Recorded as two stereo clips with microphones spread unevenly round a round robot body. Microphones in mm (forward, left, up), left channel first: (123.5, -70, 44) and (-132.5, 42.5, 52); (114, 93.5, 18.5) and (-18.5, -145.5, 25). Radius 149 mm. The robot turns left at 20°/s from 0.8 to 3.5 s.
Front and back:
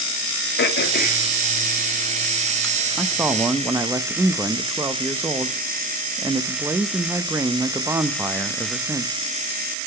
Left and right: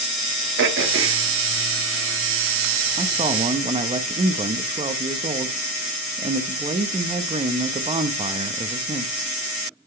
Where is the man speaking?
120° right, 0.6 m; by 9.1 s 135° right, 0.6 m.